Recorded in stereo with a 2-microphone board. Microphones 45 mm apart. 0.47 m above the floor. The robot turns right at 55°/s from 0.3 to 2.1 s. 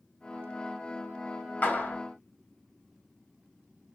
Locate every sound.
1.6 s a clap: 40° left (ahead or behind), 2 m; by 2.0 s 55° left (ahead or behind), 2 m